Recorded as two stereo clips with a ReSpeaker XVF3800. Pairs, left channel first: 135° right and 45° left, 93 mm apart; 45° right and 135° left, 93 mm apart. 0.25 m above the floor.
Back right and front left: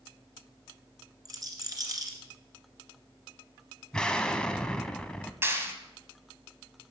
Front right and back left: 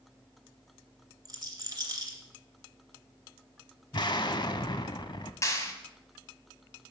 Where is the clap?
5° right, 1.7 m.